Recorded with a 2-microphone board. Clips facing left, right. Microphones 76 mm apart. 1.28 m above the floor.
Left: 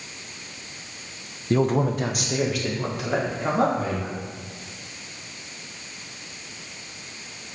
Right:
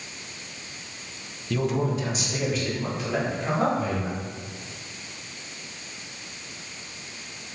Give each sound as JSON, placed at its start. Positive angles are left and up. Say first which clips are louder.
{"t": 1.5, "sound": "a man speaking", "louder": "left 4 dB", "side_deg": 35, "distance_m": 0.8}